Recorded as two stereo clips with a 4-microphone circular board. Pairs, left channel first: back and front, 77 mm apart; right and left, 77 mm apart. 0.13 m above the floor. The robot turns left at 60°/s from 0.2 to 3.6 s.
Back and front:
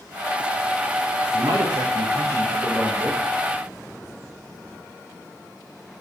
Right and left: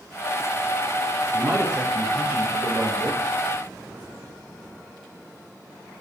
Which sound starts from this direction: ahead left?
A man speaking, at 1.3 s.